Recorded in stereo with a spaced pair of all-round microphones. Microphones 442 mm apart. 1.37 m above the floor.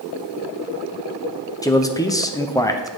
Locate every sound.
1.6 s a man speaking: 10° left (ahead or behind), 0.6 m